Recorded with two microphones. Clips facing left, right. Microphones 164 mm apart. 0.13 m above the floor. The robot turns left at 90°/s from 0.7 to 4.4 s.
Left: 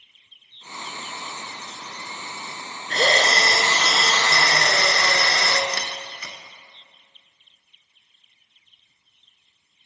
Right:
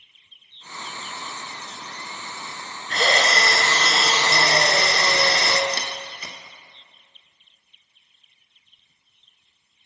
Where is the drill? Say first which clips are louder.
Left 1 dB; 95° left, 0.7 m; by 5.6 s 40° right, 0.7 m.